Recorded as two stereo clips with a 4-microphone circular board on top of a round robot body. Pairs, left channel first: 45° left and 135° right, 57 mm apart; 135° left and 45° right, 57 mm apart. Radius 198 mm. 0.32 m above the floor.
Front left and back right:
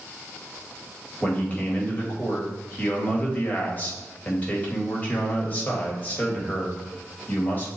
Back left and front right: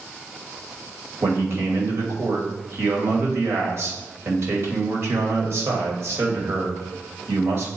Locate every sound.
1.2 s a man speaking: 15° right, 2 m